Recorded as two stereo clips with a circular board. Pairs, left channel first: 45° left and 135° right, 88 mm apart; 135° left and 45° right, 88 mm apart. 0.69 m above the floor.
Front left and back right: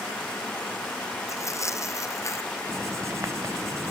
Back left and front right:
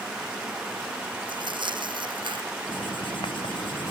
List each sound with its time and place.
1.3 s tearing paper: 10° right
2.7 s writing: 165° left